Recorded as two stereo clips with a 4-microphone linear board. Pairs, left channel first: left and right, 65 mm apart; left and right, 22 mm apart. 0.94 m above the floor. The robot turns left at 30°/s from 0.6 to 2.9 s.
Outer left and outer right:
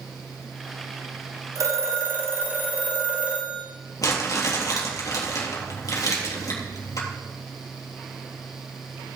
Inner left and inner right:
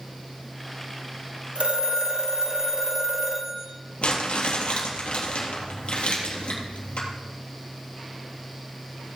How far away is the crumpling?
About 3.5 m.